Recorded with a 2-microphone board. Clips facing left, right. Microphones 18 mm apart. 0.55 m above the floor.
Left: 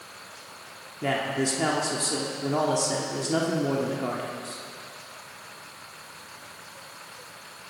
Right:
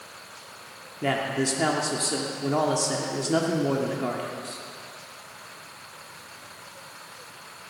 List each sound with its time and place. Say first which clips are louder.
1.0 s a man speaking: right 1 dB; 10° right (ahead or behind), 1.1 m